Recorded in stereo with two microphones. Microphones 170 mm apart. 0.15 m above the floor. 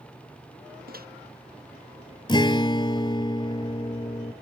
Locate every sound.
0.9 s a microwave: 60° right (ahead or behind)
2.3 s a guitar: 25° left (ahead or behind)